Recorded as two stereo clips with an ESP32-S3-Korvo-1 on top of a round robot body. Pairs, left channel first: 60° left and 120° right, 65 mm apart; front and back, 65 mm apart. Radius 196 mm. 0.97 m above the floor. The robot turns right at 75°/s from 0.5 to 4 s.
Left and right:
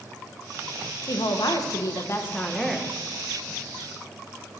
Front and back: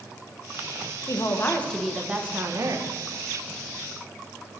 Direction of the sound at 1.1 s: 30° left.